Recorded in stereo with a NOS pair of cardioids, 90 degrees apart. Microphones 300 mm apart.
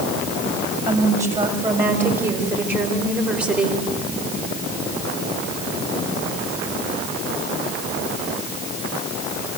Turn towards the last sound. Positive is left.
turn(degrees=-5)